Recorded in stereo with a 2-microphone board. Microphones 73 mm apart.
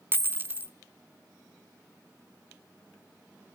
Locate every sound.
0.1 s a dropped coin: 30° right (ahead or behind), 0.6 m